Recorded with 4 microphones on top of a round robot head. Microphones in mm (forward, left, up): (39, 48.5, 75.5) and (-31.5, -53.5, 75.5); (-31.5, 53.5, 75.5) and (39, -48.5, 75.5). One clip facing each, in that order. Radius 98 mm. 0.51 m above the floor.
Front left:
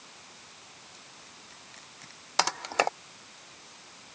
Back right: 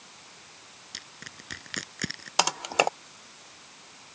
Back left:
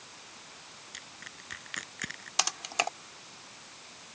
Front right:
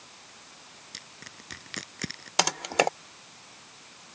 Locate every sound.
0.9 s crushing: 115° right
2.4 s typing on a keyboard: 50° right